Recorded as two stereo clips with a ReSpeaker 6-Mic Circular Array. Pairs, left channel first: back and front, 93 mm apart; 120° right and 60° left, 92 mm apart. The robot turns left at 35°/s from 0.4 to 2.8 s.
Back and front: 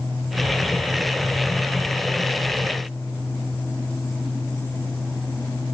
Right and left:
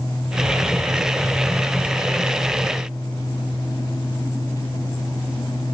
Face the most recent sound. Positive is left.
No sound to turn to.